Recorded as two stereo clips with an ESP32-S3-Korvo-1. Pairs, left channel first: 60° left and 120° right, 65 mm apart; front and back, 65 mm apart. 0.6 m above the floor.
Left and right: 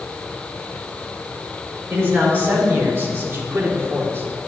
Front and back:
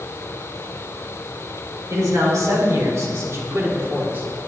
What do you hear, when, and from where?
1.9 s a man speaking: 170° right, 2.5 m; by 4.5 s 135° right, 1.3 m